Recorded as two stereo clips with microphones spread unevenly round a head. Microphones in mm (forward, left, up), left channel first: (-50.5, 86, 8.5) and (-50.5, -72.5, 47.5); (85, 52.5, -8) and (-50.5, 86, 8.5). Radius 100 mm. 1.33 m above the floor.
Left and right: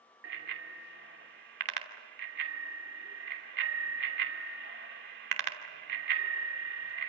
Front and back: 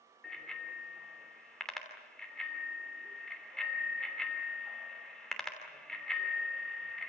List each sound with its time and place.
0.2 s a bicycle bell: 105° right, 3 m